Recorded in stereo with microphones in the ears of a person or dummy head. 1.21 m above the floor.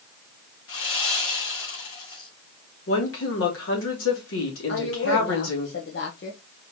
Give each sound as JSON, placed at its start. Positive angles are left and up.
{"t": 0.7, "sound": "sawing", "side_deg": 80, "distance_m": 2.5}
{"t": 2.9, "sound": "a woman speaking", "side_deg": 80, "distance_m": 3.0}
{"t": 4.7, "sound": "a woman speaking", "side_deg": 65, "distance_m": 1.0}